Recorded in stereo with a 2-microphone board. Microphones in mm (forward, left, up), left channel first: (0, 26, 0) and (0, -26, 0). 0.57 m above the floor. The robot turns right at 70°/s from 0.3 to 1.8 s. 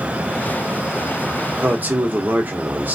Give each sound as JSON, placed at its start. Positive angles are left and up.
{"t": 1.6, "sound": "a man speaking", "side_deg": -40, "distance_m": 0.8}